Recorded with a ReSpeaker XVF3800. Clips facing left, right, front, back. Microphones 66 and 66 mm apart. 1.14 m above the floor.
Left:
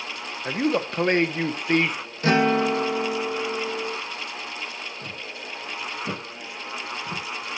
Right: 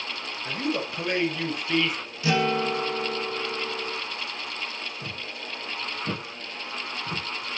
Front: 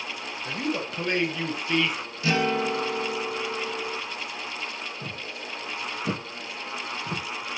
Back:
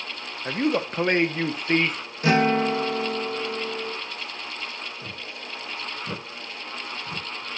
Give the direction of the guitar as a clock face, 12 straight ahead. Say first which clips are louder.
Left 4 dB, back 4 dB; 7 o'clock.